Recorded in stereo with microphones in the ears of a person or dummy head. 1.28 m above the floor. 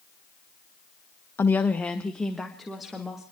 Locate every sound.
1.4 s a woman speaking: 10° left (ahead or behind), 0.6 m; by 3.2 s 5° right (ahead or behind), 2 m